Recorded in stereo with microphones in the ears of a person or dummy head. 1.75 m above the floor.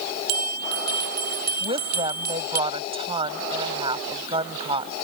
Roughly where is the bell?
Right.